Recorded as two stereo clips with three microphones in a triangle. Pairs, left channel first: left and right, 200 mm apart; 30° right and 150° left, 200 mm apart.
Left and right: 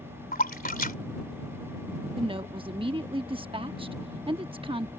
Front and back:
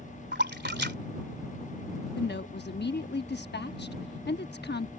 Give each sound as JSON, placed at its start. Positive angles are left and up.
{"t": 0.3, "sound": "a splash", "azimuth_deg": 130}
{"t": 2.2, "sound": "a woman speaking", "azimuth_deg": -30}